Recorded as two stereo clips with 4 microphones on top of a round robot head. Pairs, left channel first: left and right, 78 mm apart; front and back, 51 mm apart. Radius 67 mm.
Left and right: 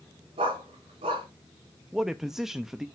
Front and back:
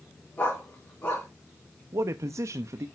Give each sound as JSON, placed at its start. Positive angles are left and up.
{"t": 0.4, "sound": "a dog barking", "azimuth_deg": -70, "distance_m": 4.0}
{"t": 1.9, "sound": "a man speaking", "azimuth_deg": -175, "distance_m": 0.5}